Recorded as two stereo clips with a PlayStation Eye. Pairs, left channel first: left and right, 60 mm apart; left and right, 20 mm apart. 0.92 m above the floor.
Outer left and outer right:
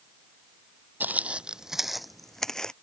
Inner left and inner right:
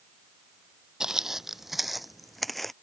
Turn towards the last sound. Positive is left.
turn(degrees=10)  # may be behind; listen again after turning